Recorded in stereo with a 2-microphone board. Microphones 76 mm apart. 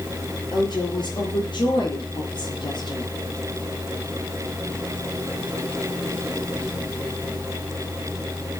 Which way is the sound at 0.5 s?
75° left (ahead or behind).